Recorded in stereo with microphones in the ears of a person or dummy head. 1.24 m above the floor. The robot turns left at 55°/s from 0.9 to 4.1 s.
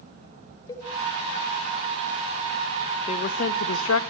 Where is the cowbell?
25° left (ahead or behind), 3 m.